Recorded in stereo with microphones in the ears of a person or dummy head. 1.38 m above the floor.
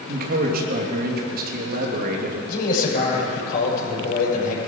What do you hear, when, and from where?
0.1 s a man speaking: 60° right (ahead or behind), 2.5 m
2.5 s a man speaking: 50° left (ahead or behind), 6.5 m